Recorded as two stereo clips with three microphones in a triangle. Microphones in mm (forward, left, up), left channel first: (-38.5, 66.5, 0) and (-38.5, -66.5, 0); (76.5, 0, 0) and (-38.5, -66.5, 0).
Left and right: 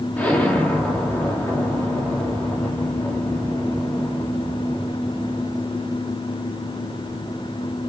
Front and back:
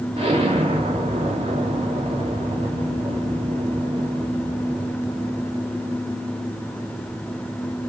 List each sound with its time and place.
0.2 s an explosion: 170° left, 2.5 m